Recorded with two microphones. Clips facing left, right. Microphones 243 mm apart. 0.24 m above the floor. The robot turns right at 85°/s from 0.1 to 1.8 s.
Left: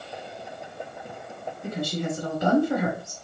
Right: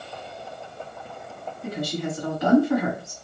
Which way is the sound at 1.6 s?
30° left (ahead or behind).